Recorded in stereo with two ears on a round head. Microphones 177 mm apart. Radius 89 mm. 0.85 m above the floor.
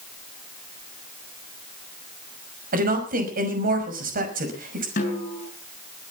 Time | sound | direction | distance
2.7 | a woman speaking | 45° right (ahead or behind) | 5.5 m
5.0 | a snare drum | 40° left (ahead or behind) | 7 m